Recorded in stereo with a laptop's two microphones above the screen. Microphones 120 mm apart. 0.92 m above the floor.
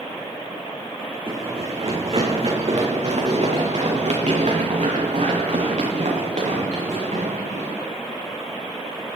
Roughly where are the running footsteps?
Right.